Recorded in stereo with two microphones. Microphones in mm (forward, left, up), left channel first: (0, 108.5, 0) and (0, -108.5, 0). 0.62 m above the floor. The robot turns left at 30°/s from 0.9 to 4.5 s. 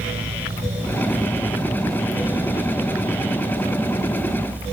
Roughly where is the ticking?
Centre.